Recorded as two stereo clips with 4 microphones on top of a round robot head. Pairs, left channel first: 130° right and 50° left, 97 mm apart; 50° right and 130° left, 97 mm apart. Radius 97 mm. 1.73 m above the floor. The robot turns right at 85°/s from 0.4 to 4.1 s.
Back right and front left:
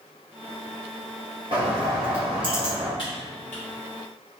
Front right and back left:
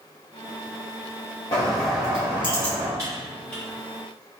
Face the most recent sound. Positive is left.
turn(degrees=-80)